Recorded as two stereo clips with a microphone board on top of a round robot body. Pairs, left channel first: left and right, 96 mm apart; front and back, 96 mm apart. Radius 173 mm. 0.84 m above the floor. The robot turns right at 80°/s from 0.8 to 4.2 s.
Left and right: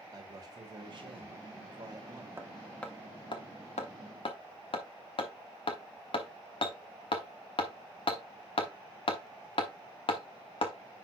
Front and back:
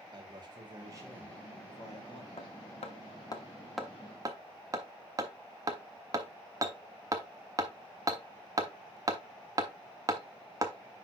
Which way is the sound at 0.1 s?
140° right.